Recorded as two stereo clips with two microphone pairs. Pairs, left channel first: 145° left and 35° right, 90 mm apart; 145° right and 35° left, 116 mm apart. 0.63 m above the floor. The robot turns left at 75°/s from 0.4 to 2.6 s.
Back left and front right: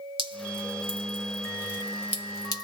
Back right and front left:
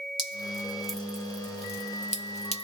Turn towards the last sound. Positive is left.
turn(degrees=-175)